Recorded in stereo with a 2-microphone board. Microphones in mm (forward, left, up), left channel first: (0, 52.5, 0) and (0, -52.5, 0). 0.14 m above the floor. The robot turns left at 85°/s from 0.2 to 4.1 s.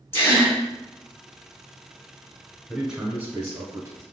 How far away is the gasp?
About 1.4 m.